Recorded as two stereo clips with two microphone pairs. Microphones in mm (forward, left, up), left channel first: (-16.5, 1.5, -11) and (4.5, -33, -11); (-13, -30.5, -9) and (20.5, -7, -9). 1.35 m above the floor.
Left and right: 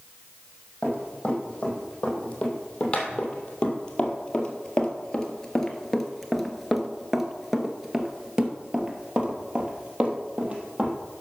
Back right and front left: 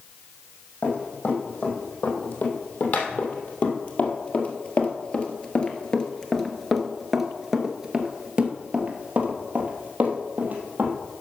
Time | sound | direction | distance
0.8 | running footsteps | straight behind | 3.5 m